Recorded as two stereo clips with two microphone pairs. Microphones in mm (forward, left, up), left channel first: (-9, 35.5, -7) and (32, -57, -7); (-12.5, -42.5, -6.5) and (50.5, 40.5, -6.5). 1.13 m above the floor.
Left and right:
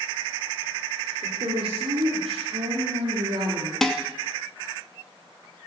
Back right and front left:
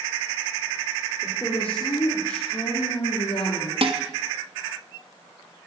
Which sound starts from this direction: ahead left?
Dishes clattering, at 3.8 s.